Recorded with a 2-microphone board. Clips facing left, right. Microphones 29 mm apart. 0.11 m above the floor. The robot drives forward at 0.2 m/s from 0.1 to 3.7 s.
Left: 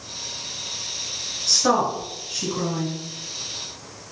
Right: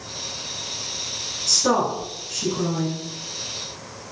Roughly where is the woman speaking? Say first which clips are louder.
Left 1 dB; left.